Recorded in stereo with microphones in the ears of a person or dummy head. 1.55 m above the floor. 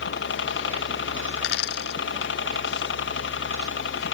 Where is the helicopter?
60° left (ahead or behind).